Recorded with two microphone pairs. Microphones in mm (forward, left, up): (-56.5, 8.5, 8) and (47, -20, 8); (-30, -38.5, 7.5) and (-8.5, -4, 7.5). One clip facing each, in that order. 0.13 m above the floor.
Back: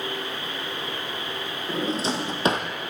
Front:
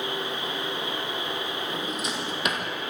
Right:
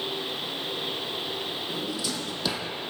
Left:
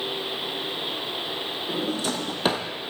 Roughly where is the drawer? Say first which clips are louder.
Back 5 dB, left 8 dB; left.